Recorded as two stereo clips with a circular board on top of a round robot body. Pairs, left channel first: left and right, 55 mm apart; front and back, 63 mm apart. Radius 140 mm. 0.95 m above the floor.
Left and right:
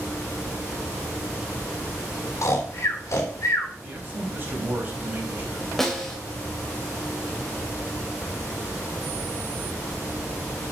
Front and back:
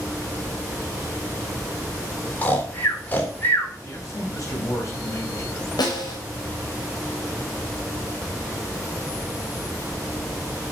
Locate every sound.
2.4 s snoring: 60° left, 3.5 m
3.8 s a man speaking: 35° right, 5 m
5.8 s a snare drum: 5° left, 3 m